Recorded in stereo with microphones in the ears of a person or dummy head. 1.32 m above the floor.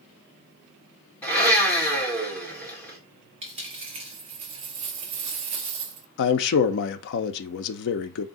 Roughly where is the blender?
Centre.